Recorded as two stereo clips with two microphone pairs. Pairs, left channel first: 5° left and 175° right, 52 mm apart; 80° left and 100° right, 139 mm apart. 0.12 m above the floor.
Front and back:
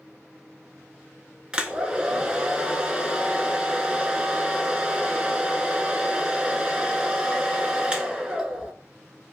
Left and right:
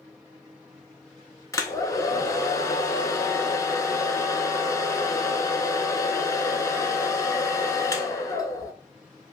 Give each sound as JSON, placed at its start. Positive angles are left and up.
{"t": 1.5, "sound": "a hair dryer", "azimuth_deg": 120, "distance_m": 0.6}